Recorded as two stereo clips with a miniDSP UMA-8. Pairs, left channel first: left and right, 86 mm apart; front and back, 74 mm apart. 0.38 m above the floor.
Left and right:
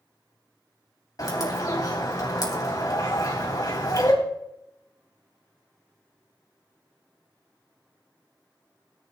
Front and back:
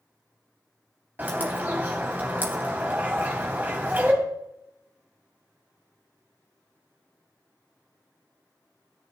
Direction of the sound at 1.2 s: 120° left.